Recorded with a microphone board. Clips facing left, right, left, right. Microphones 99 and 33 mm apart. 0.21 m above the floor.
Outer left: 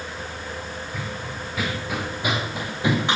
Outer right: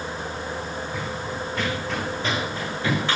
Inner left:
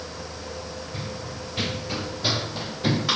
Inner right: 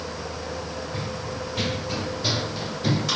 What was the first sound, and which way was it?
Running footsteps, centre (ahead or behind).